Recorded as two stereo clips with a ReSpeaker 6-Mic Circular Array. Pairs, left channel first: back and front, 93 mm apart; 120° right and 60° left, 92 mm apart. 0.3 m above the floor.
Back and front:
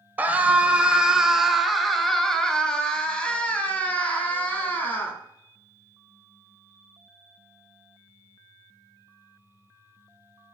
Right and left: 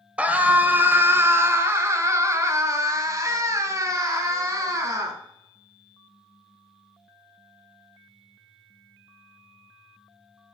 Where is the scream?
15° left, 1.3 m; by 5.2 s 110° left, 3 m.